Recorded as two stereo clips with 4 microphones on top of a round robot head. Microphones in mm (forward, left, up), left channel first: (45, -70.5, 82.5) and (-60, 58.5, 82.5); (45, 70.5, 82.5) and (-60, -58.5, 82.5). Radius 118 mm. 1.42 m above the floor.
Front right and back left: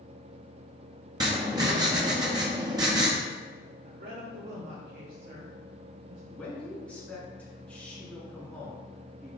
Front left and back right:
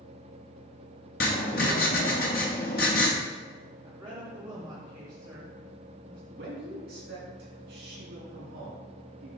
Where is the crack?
No crack in this recording.